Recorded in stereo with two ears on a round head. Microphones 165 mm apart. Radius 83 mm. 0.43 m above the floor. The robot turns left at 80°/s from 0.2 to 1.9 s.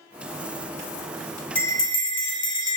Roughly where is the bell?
Centre.